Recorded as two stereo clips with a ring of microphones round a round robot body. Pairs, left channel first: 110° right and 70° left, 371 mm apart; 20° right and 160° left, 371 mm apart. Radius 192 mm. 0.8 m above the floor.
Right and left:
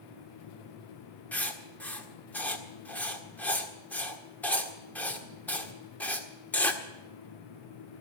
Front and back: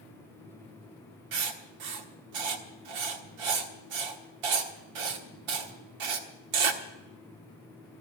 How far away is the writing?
About 1.5 m.